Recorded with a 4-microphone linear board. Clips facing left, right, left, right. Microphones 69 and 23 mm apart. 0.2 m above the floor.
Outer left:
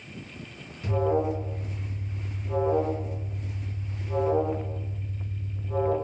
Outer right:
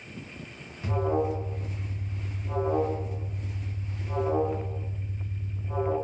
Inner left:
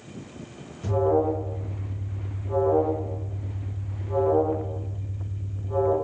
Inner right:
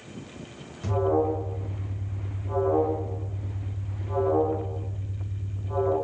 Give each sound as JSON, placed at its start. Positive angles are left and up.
{"t": 0.8, "sound": "an alarm", "side_deg": -25, "distance_m": 1.6}